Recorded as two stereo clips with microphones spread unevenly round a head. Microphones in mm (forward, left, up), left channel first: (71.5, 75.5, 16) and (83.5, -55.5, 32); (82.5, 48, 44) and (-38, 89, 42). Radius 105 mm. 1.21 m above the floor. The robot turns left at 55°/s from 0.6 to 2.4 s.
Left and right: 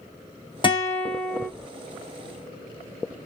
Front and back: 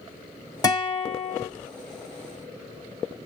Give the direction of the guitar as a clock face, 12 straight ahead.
11 o'clock.